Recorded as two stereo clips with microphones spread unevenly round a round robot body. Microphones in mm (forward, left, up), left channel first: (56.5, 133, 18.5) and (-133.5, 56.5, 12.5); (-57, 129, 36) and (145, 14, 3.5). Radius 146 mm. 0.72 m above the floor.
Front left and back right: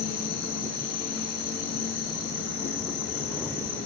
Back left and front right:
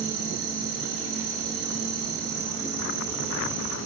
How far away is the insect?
About 0.9 m.